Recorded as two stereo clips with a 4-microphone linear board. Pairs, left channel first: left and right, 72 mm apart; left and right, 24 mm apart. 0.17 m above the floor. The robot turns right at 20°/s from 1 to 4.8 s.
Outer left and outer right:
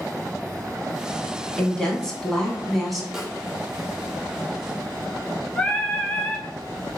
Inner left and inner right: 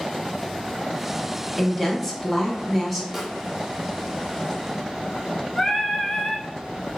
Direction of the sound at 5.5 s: 15° left (ahead or behind).